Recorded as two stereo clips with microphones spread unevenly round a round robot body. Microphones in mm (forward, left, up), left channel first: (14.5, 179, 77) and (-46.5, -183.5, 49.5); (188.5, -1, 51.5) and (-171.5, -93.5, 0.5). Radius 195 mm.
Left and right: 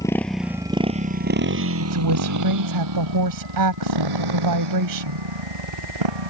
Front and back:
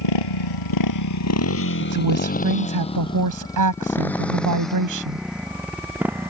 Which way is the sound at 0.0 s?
Straight ahead.